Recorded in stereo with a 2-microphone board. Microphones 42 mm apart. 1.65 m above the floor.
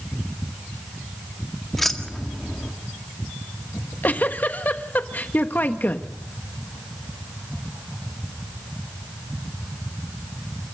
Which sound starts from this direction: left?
A giggle, at 3.7 s.